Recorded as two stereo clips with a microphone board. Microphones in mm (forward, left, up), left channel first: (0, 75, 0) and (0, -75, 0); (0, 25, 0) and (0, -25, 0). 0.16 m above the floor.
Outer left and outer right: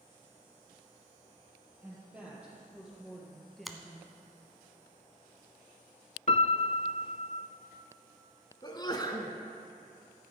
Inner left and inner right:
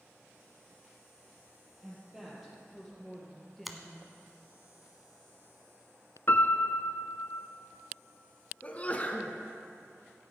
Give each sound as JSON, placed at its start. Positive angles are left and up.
{"t": 1.8, "sound": "a woman speaking", "side_deg": -10, "distance_m": 4.0}
{"t": 3.6, "sound": "a finger snap", "side_deg": 0, "distance_m": 1.0}
{"t": 6.3, "sound": "a piano", "side_deg": 50, "distance_m": 0.6}
{"t": 8.6, "sound": "a sneeze", "side_deg": 30, "distance_m": 1.4}